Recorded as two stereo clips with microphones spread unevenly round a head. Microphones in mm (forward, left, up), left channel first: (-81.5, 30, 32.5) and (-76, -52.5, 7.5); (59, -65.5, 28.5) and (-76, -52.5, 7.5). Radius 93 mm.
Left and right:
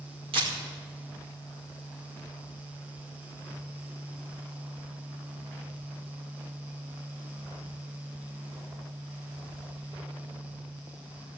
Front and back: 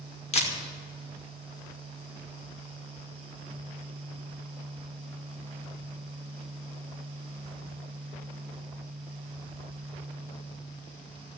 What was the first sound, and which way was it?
A camera shutter, 45° right.